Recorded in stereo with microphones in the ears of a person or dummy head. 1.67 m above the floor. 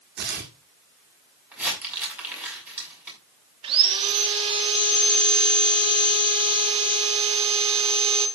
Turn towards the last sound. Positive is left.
turn(degrees=-35)  # may be behind; listen again after turning